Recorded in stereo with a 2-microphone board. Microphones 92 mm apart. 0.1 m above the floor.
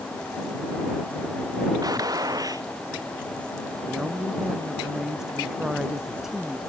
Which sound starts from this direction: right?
A gunshot, at 1.8 s.